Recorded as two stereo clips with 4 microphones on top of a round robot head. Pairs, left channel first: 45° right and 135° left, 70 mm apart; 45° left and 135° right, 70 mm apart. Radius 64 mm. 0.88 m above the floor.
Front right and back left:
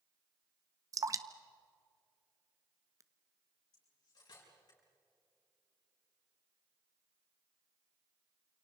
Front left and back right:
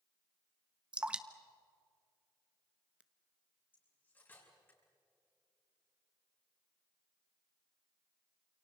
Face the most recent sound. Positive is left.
turn(degrees=-15)